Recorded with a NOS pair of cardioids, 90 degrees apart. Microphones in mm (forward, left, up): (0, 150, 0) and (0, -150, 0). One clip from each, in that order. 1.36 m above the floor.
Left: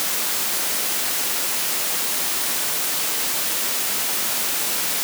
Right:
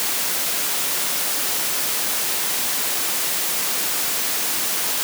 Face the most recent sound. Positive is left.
No sound to turn to.